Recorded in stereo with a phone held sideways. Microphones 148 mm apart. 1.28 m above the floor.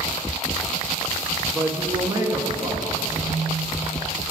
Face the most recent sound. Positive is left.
turn(degrees=10)  # may be behind; listen again after turning